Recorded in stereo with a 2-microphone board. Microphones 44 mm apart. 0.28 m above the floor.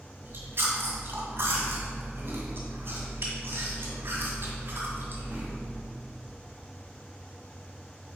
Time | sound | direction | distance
0.2 | chewing | 55° right (ahead or behind) | 1.9 m